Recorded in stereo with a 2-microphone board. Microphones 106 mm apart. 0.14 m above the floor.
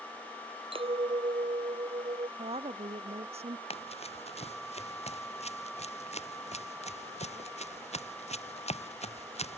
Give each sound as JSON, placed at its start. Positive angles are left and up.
{"t": 0.7, "sound": "a clink", "side_deg": -60}
{"t": 2.4, "sound": "a woman speaking", "side_deg": -70}
{"t": 3.7, "sound": "running footsteps", "side_deg": 70}